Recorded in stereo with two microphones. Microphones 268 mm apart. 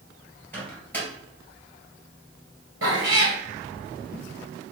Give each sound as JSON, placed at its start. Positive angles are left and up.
{"t": 0.5, "sound": "a microwave", "side_deg": 5, "distance_m": 1.9}
{"t": 2.8, "sound": "a cat meowing", "side_deg": -55, "distance_m": 1.3}